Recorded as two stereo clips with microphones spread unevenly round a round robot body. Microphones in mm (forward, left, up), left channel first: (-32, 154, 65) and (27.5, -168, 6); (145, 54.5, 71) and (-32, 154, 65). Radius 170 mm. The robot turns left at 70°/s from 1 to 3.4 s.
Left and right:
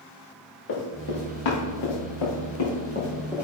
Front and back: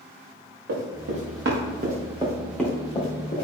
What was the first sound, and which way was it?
Running footsteps, 155° left.